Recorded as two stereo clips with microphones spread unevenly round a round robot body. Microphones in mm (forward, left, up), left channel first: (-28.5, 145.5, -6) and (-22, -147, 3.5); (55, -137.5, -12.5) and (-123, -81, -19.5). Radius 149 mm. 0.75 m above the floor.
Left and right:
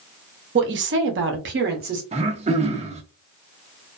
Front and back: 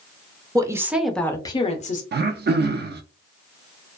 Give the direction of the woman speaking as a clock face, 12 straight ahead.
4 o'clock.